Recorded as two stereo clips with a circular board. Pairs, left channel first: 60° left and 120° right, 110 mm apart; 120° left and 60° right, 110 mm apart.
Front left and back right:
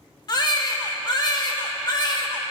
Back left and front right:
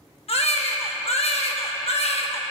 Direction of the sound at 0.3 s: 110° left.